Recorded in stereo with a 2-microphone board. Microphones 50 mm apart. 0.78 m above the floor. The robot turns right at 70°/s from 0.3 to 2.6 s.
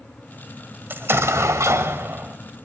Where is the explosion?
130° right, 1.5 m; by 2.4 s 30° right, 1.5 m.